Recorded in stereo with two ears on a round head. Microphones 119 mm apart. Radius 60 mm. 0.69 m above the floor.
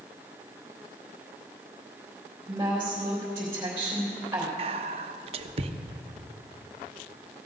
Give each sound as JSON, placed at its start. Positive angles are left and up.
{"t": 2.5, "sound": "a woman speaking", "side_deg": -20, "distance_m": 3.5}
{"t": 4.6, "sound": "whispering", "side_deg": -50, "distance_m": 0.8}